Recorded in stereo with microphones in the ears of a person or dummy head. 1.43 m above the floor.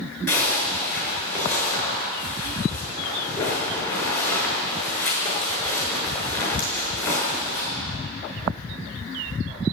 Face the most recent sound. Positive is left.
turn(degrees=15)  # may be behind; listen again after turning